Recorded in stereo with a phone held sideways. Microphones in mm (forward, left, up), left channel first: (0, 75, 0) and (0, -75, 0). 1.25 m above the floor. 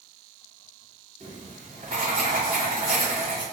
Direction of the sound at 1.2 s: 55° right (ahead or behind).